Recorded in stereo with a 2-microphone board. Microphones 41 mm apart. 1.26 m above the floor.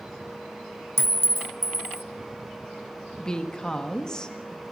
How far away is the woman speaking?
About 1.7 m.